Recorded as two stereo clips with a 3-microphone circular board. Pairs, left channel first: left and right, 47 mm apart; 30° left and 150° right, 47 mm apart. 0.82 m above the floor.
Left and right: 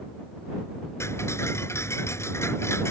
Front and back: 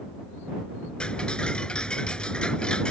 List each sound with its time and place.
1.0 s ticking: 100° left